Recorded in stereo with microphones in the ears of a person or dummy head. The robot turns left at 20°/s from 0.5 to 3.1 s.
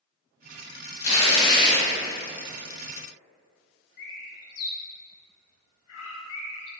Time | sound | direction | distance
1.0 | tearing paper | 50° left (ahead or behind) | 1.3 m
4.0 | a bird | 80° left | 0.5 m